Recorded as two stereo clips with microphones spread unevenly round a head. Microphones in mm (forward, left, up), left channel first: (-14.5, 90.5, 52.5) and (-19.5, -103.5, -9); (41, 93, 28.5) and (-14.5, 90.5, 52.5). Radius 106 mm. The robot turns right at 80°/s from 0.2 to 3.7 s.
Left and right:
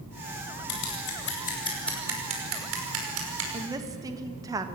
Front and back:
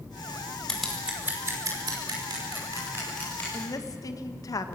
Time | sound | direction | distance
0.7 | scissors | 80° left | 5.5 m
3.5 | a woman speaking | 30° right | 1.5 m